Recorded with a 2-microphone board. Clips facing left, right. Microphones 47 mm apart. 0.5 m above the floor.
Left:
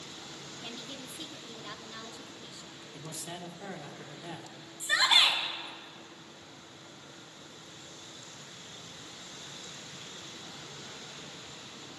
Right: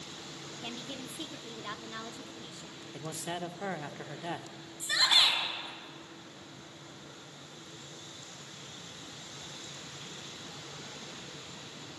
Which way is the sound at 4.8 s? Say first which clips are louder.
Left 2 dB; 15° left (ahead or behind).